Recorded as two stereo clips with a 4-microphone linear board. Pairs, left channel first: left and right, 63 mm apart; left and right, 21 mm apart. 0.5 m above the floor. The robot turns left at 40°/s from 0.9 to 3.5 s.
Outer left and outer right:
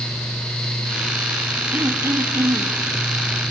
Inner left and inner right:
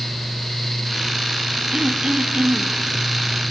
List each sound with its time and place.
1.7 s throat clearing: 35° right, 0.8 m; by 2.7 s 75° right, 0.8 m